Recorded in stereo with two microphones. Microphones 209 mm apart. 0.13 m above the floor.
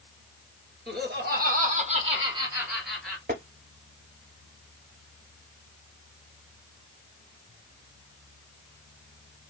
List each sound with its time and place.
0.9 s laughter: 55° right (ahead or behind), 2 m; by 3.2 s 5° left (ahead or behind), 1.7 m
3.3 s tapping: 45° right (ahead or behind), 0.8 m